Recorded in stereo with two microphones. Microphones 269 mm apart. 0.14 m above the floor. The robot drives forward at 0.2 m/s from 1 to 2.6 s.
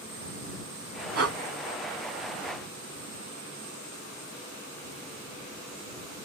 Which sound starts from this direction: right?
Breathing, at 1.1 s.